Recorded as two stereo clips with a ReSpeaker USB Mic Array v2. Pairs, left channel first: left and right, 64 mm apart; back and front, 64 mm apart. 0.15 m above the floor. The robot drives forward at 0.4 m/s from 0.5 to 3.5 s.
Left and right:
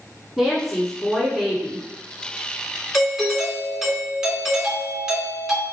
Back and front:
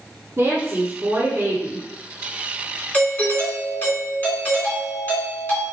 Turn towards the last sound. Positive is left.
turn(degrees=-160)